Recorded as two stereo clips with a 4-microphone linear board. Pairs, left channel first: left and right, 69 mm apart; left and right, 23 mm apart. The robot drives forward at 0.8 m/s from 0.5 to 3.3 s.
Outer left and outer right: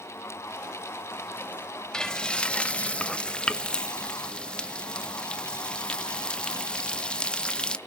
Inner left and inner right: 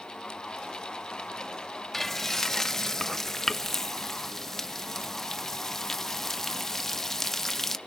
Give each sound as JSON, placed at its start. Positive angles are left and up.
{"t": 1.9, "sound": "frying", "side_deg": 10, "distance_m": 0.9}